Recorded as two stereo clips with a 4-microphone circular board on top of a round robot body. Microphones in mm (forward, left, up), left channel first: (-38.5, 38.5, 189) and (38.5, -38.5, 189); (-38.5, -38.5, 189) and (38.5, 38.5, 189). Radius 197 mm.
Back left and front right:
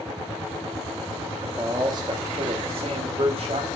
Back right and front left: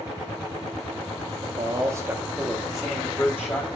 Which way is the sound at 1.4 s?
15° left.